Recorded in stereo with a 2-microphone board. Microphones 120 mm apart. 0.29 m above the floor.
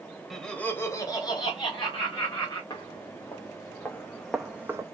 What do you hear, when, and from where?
0.3 s laughter: centre (ahead or behind), 0.9 m; by 2.6 s 45° left (ahead or behind), 2 m
2.7 s footsteps: 35° left (ahead or behind), 1.4 m; by 4.8 s 25° right (ahead or behind), 0.6 m